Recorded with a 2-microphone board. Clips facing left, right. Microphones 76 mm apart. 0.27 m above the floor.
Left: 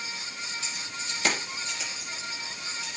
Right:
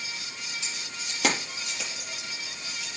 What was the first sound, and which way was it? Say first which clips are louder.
Keys jangling: left 2 dB; 70° right (ahead or behind).